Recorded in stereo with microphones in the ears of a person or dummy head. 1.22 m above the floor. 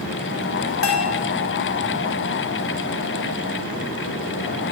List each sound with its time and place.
0.8 s a bell: 65° left (ahead or behind), 1.9 m